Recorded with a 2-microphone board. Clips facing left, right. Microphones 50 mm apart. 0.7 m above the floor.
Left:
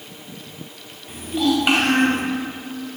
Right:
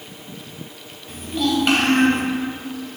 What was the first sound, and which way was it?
A child speaking, 5° left (ahead or behind).